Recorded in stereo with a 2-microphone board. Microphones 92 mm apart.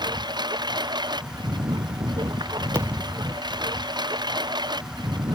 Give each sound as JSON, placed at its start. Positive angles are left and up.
{"t": 0.0, "sound": "a lawn mower", "side_deg": -50}
{"t": 2.8, "sound": "a thud", "side_deg": -25}